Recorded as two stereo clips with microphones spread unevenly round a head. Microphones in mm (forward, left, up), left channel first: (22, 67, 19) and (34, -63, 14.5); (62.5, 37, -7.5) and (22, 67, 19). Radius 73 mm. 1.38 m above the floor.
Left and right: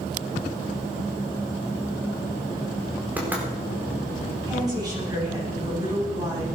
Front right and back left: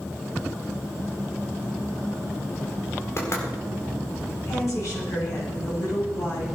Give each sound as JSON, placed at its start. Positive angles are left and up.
{"t": 3.2, "sound": "knocking", "azimuth_deg": -5, "distance_m": 4.5}
{"t": 4.5, "sound": "a woman speaking", "azimuth_deg": -25, "distance_m": 9.5}